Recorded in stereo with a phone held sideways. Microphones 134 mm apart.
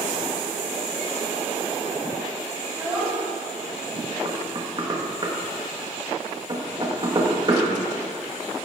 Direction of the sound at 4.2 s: 35° right (ahead or behind).